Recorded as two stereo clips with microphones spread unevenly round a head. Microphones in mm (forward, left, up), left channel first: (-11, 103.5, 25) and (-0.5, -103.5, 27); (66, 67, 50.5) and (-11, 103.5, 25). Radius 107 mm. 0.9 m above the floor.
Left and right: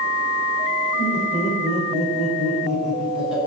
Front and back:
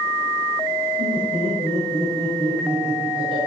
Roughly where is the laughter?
Behind.